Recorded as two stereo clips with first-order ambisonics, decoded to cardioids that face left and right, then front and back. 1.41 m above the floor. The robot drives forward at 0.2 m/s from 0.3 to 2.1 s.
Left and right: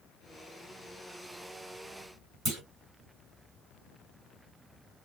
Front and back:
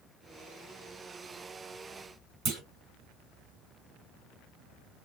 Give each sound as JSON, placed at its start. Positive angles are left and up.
{"t": 2.5, "sound": "a clunk", "azimuth_deg": -160, "distance_m": 1.9}